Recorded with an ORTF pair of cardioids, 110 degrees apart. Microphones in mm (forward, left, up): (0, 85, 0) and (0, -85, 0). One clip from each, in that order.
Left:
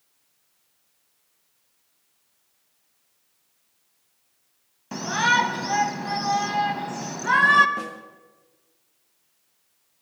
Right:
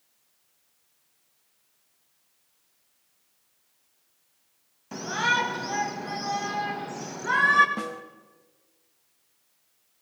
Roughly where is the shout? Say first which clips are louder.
Left 4 dB; ahead.